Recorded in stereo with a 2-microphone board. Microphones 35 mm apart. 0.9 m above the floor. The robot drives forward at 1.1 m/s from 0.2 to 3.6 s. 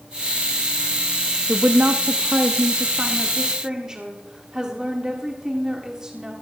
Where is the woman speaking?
45° right (ahead or behind), 0.8 m; by 6.3 s 15° right (ahead or behind), 2.0 m.